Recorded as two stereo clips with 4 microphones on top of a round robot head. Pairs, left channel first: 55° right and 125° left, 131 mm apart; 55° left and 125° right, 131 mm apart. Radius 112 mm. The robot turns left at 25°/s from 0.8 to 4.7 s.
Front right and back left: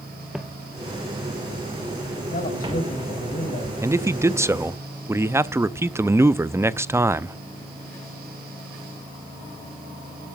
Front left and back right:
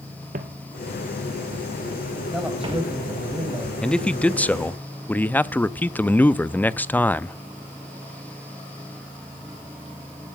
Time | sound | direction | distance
0.3 | footsteps | 150° right | 0.8 m
2.3 | a man speaking | 35° right | 5 m
3.8 | a man speaking | 125° left | 0.6 m